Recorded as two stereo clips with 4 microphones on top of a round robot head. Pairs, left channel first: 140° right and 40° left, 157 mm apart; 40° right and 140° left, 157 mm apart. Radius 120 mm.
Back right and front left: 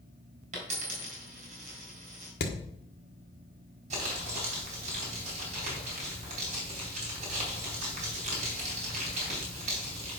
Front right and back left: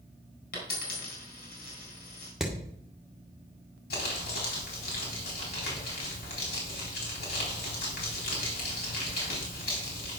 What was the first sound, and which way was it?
A dropped coin, 10° right.